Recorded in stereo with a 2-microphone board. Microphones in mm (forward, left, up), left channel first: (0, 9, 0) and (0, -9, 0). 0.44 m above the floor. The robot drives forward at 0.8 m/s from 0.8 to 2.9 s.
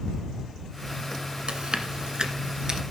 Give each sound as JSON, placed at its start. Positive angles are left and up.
{"t": 1.5, "sound": "chewing", "side_deg": -70, "distance_m": 1.2}